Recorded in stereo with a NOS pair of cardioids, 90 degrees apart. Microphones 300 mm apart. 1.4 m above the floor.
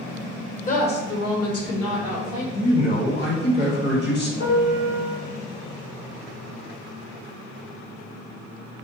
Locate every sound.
0.7 s a woman speaking: 25° left, 0.8 m; by 2.4 s 65° left, 1.5 m
2.5 s a man speaking: 35° left, 1.2 m
4.4 s a piano: 60° left, 1.3 m